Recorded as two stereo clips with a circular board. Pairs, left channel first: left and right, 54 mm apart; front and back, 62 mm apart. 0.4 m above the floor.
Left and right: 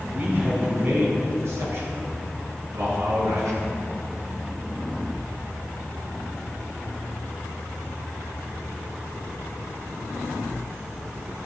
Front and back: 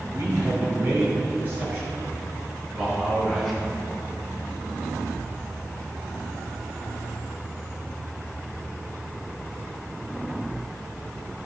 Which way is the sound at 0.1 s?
145° right.